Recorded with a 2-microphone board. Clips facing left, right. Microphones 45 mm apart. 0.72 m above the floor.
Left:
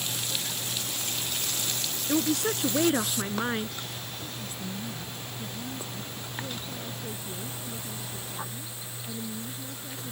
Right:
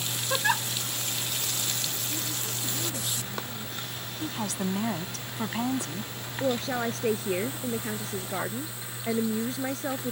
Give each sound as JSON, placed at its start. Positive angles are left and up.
{"t": 0.3, "sound": "a giggle", "side_deg": -75}
{"t": 2.1, "sound": "a woman speaking", "side_deg": 85}
{"t": 4.2, "sound": "a woman speaking", "side_deg": -85}
{"t": 6.4, "sound": "a woman speaking", "side_deg": -75}